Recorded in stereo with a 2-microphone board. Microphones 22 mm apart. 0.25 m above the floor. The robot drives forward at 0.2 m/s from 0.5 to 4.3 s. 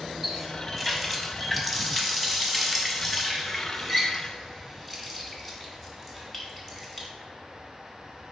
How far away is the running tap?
About 1.1 m.